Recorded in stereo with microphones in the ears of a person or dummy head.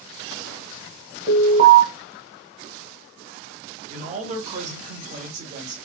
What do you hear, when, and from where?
1.3 s an alarm: 35° right (ahead or behind), 1.0 m
3.9 s a man speaking: 40° right (ahead or behind), 0.9 m